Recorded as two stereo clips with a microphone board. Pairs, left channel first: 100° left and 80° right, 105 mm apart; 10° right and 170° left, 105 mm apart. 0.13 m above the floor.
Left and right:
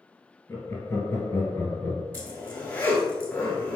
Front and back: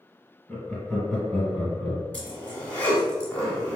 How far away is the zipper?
About 1.0 m.